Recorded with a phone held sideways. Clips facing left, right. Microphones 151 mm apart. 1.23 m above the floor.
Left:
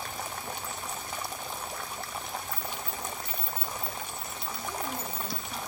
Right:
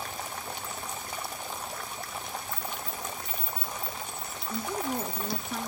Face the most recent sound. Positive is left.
turn(degrees=-75)  # may be behind; listen again after turning